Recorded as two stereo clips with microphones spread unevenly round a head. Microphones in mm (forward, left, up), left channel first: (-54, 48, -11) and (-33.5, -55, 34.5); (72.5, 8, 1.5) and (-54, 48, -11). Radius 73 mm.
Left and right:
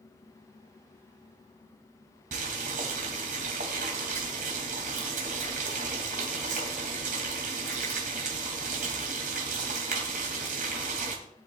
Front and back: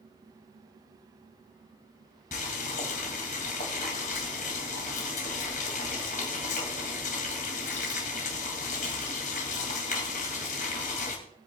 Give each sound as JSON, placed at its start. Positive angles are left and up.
{"t": 2.3, "sound": "boiling", "azimuth_deg": -60, "distance_m": 2.5}